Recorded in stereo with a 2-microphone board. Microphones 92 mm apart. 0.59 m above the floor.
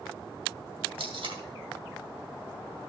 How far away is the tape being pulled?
About 2 m.